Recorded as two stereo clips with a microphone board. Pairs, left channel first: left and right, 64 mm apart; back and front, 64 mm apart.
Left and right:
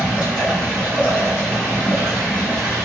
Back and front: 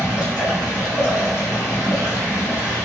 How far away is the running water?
About 1.7 m.